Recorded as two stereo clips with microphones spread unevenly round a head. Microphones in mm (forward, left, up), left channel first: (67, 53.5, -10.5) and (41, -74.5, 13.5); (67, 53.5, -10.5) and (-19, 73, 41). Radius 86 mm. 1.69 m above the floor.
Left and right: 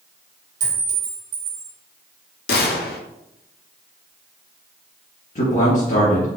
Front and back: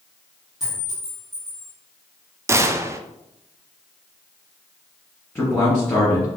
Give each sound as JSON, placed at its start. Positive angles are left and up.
{"t": 0.6, "sound": "a clink", "azimuth_deg": -120, "distance_m": 1.5}
{"t": 2.5, "sound": "a gunshot", "azimuth_deg": 110, "distance_m": 0.5}
{"t": 5.3, "sound": "a man speaking", "azimuth_deg": 60, "distance_m": 2.5}